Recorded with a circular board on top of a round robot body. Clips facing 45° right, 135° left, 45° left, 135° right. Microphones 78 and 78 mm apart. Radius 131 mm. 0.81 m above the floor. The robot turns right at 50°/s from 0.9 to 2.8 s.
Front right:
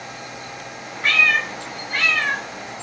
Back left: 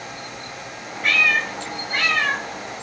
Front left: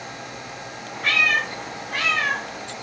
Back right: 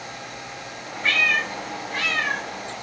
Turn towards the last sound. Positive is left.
turn(degrees=95)